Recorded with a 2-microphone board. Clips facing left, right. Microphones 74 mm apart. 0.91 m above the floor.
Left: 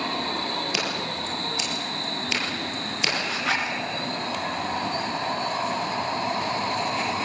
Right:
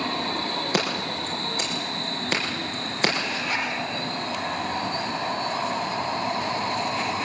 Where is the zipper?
75° left (ahead or behind), 4.5 m.